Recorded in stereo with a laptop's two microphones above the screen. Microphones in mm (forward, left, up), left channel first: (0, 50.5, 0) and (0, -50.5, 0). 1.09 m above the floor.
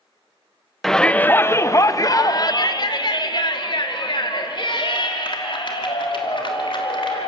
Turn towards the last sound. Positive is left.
turn(degrees=55)  # may be behind; listen again after turning